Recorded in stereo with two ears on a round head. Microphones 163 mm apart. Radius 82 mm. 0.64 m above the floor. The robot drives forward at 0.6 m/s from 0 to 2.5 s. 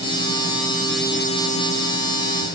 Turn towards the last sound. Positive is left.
No sound to turn to.